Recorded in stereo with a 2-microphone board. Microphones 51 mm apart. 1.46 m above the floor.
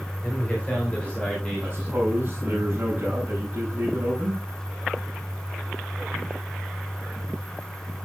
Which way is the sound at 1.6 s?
35° right (ahead or behind).